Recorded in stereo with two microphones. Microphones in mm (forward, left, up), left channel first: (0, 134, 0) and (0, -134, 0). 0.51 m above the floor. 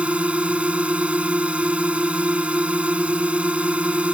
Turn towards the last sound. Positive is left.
turn(degrees=-5)  # may be behind; listen again after turning